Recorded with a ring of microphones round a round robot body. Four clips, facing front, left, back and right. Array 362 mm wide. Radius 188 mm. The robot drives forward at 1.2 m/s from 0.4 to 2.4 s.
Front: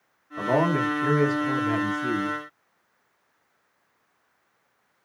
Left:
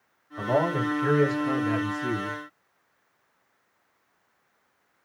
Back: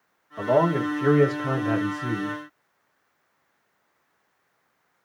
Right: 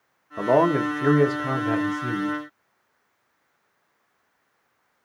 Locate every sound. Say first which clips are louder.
0.4 s a man speaking: right 6 dB, back 2 dB; 90° right, 1.6 m; by 2.4 s 145° right, 3 m